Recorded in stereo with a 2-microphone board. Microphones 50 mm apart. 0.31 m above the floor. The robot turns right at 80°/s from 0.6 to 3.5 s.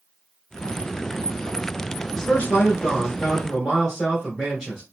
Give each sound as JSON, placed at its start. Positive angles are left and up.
{"t": 2.1, "sound": "a man speaking", "side_deg": 20, "distance_m": 1.3}